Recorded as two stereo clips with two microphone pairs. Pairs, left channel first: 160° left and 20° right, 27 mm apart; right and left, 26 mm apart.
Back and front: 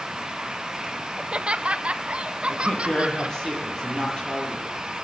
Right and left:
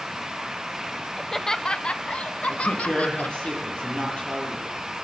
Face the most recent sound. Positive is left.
turn(degrees=-140)